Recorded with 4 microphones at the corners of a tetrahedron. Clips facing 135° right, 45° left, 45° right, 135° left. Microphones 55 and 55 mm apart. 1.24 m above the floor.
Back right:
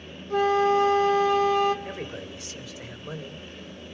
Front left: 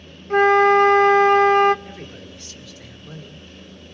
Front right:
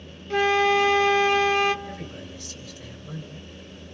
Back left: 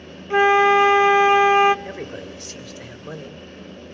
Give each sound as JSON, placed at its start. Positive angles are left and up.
{"t": 0.3, "sound": "a flute", "azimuth_deg": 70, "distance_m": 0.7}
{"t": 1.9, "sound": "a man speaking", "azimuth_deg": 150, "distance_m": 3.0}